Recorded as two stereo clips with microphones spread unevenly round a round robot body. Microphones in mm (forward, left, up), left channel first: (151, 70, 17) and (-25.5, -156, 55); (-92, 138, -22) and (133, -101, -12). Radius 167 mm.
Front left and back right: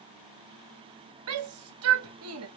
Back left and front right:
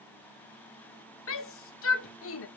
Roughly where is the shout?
Behind.